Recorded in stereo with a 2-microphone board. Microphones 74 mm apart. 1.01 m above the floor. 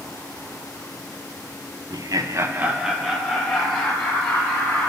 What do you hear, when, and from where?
1.9 s laughter: 60° right (ahead or behind), 0.6 m; by 4.9 s 20° left (ahead or behind), 2 m